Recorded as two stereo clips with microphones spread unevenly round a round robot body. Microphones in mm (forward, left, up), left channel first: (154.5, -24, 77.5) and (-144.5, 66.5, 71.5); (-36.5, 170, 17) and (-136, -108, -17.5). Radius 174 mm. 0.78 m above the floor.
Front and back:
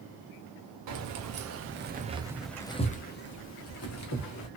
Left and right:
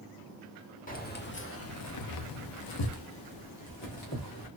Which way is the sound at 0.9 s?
135° left.